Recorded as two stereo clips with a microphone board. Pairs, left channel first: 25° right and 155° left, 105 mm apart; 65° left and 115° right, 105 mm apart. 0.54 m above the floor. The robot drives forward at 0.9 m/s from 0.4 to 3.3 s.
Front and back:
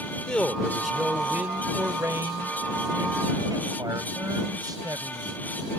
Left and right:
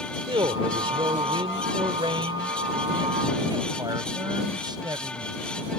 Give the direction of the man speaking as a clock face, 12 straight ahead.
4 o'clock.